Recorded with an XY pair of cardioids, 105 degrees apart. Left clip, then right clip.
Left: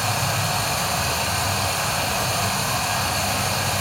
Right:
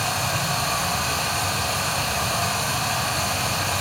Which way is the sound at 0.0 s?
10° left.